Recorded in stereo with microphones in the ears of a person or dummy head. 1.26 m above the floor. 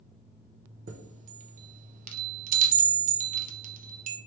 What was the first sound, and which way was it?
A chime, 45° right (ahead or behind).